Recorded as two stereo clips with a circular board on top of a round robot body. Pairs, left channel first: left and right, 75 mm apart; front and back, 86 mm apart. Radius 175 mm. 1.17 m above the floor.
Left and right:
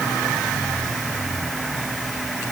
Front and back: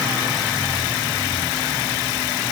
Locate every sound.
Only background noise.